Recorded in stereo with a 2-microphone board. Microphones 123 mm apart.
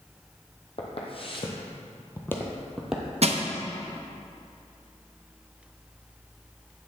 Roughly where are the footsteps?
Left.